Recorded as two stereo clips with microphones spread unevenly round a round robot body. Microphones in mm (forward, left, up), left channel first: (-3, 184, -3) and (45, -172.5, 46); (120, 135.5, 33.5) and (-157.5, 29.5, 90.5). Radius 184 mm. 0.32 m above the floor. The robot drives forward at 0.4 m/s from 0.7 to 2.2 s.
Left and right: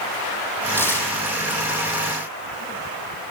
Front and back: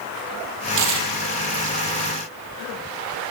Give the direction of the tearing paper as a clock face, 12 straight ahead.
6 o'clock.